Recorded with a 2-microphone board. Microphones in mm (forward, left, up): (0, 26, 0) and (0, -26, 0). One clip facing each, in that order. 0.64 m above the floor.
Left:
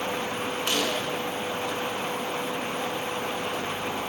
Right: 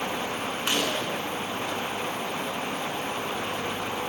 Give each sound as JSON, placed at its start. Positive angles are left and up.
{"t": 0.7, "sound": "a gunshot", "side_deg": -15, "distance_m": 9.0}